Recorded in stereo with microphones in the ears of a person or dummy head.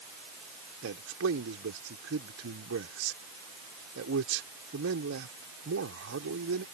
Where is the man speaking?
85° right.